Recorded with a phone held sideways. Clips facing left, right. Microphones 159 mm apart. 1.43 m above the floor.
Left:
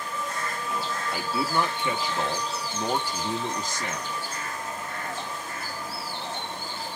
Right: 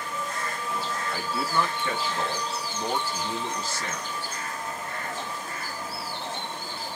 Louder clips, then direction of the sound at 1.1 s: Left 1 dB; 15° left (ahead or behind).